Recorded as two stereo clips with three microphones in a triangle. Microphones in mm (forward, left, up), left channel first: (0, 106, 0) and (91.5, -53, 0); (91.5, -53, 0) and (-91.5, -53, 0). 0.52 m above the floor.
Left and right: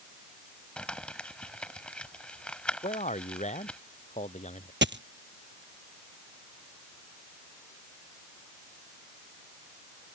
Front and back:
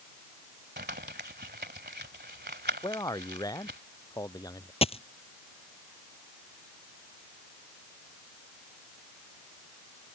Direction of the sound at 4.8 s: 60° right.